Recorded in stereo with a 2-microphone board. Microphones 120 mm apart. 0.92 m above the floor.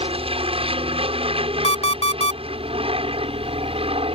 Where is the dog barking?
I don't hear a dog barking.